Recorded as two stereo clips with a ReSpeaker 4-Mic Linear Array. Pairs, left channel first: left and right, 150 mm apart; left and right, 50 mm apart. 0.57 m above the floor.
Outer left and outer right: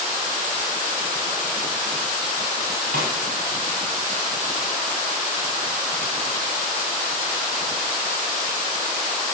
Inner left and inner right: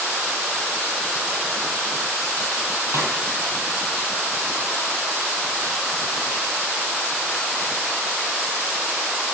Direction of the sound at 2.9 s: 70° right (ahead or behind).